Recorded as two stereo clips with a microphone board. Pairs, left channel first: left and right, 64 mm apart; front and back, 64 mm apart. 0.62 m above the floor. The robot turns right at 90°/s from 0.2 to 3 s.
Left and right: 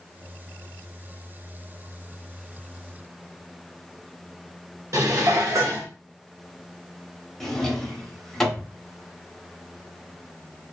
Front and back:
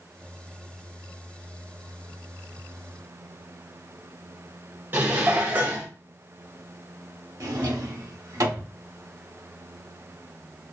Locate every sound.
4.9 s dishes clattering: 125° right, 0.8 m
7.4 s a drawer: 175° left, 0.8 m